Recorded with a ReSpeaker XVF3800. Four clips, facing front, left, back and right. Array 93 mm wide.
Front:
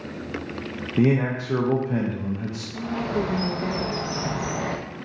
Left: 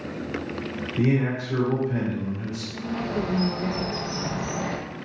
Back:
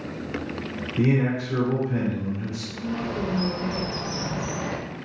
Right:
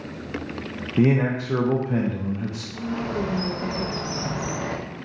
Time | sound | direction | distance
1.0 | a man speaking | 50° right | 0.7 m
2.7 | a bird | 15° right | 0.7 m